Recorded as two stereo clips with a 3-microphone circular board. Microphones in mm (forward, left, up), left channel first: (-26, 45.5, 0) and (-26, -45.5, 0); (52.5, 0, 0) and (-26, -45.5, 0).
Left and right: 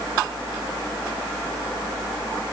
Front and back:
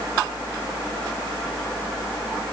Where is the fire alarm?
No fire alarm in this recording.